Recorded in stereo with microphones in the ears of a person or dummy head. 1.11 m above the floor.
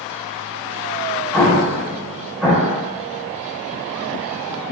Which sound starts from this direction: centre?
An explosion, at 1.3 s.